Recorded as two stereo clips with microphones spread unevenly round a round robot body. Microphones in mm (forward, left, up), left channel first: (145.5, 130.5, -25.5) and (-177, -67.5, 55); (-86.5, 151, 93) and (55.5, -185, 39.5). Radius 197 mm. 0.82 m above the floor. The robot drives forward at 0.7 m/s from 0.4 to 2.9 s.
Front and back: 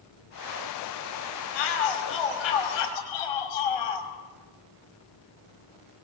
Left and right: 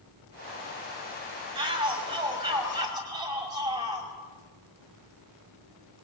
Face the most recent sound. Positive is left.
turn(degrees=10)